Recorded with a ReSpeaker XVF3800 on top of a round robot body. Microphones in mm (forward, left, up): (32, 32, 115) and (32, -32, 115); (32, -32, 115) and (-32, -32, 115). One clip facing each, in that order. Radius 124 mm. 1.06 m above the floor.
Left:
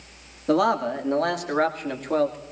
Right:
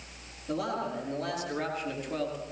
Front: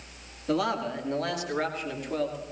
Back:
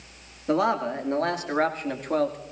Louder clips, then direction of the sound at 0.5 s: Left 11 dB, back 4 dB; 115° left.